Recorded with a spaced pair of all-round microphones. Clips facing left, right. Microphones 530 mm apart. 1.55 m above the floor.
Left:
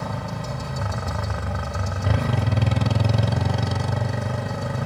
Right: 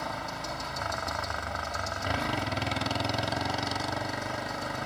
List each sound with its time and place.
0.0 s a motorcycle: 65° left (ahead or behind)